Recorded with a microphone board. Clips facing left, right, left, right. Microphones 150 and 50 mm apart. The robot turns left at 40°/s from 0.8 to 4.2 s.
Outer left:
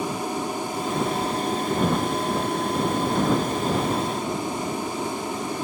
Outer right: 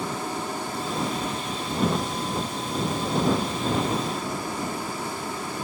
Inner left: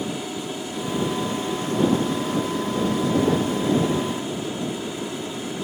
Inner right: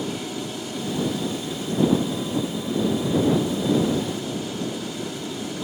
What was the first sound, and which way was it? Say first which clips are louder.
An aircraft: outer left 3 dB, even; 15° left (ahead or behind).